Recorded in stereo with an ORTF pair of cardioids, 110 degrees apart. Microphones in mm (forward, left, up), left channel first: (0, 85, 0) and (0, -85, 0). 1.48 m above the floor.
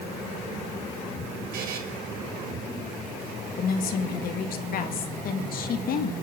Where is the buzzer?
65° right, 3 m.